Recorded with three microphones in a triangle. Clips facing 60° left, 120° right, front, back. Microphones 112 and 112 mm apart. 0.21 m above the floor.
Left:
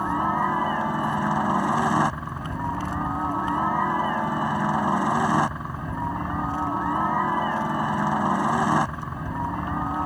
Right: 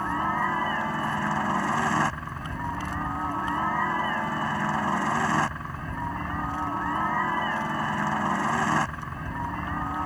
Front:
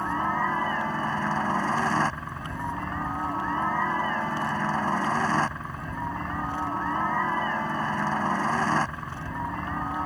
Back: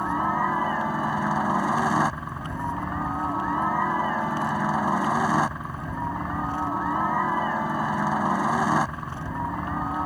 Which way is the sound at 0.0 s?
115° left.